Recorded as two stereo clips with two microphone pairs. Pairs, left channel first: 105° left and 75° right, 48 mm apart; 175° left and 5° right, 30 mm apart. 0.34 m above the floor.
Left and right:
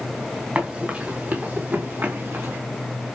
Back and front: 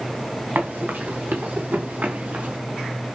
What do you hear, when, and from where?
0.6 s running footsteps: 10° right, 3 m; by 2.6 s 40° right, 4 m